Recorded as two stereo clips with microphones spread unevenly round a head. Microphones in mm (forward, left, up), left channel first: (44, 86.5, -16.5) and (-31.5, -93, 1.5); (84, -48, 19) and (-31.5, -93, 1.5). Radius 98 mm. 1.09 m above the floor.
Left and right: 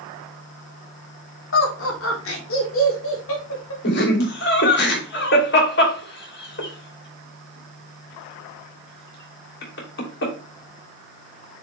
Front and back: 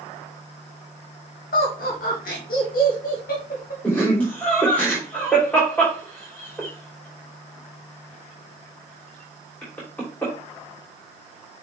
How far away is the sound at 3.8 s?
About 3 m.